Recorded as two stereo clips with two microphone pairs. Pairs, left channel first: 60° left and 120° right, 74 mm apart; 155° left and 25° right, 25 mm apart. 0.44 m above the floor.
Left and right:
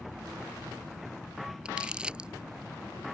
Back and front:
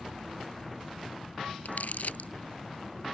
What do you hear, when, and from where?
1.6 s crumpling: 165° left